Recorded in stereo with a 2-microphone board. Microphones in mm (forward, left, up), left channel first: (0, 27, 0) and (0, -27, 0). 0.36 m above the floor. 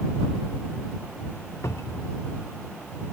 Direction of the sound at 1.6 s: 65° left (ahead or behind).